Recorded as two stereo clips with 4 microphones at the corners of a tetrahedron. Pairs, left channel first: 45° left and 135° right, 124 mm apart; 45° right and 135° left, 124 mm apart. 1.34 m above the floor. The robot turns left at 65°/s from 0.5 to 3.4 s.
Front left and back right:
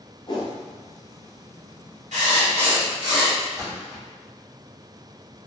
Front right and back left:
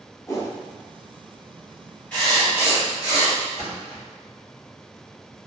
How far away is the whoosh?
About 0.8 m.